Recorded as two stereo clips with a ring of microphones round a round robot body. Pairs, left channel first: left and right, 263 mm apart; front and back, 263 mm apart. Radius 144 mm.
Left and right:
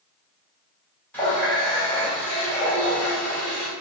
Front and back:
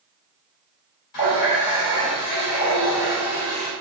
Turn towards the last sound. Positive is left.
turn(degrees=5)